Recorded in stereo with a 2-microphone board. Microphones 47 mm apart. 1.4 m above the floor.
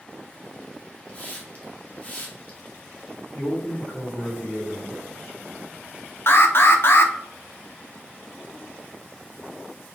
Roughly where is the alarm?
Left.